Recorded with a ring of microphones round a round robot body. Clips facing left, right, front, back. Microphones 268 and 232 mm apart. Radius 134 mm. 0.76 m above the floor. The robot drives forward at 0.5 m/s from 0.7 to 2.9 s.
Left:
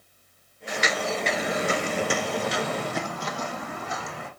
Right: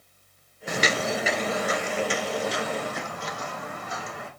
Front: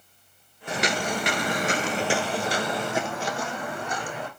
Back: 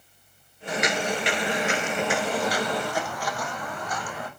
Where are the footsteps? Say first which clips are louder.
Right 2 dB, back 1 dB; 60° right, 1.0 m; by 4.3 s 65° left, 4 m.